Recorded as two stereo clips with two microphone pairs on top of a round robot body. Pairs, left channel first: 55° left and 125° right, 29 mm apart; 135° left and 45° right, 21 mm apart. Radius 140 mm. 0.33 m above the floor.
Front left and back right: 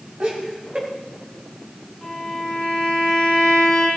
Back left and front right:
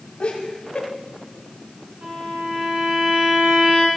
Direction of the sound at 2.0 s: 20° right.